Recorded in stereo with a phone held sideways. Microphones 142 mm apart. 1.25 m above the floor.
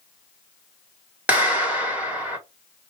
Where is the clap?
10° right (ahead or behind), 1.3 m.